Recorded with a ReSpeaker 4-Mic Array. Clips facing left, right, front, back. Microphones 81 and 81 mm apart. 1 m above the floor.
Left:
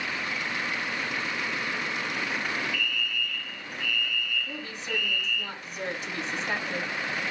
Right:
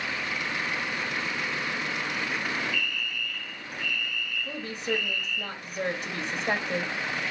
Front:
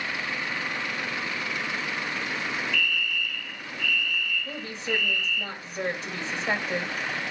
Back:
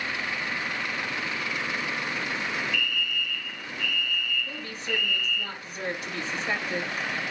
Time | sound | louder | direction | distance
2.7 | a fire alarm | left 1 dB, front 1 dB | 95° right | 3 m
4.5 | a woman speaking | right 4 dB, front 2 dB | 65° right | 2 m